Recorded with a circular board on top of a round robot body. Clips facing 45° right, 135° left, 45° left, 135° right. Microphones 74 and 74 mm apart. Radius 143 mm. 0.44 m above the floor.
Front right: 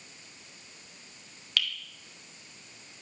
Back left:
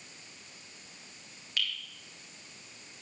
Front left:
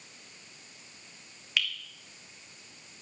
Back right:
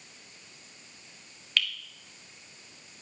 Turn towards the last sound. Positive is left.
turn(degrees=-35)